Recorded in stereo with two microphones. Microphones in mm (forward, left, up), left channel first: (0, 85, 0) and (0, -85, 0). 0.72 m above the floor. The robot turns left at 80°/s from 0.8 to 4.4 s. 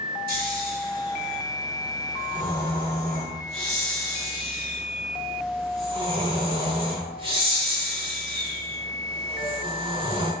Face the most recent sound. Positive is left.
turn(degrees=-35)  # may be behind; listen again after turning